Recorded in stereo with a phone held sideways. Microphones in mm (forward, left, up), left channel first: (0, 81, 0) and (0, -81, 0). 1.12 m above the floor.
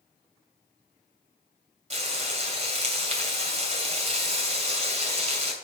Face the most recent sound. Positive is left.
turn(degrees=-45)  # may be behind; listen again after turning